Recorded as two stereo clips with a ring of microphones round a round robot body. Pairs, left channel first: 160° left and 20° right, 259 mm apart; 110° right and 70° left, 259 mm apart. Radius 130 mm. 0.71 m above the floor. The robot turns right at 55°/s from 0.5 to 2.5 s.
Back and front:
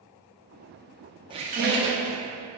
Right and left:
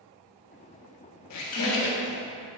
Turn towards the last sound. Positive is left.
turn(degrees=-30)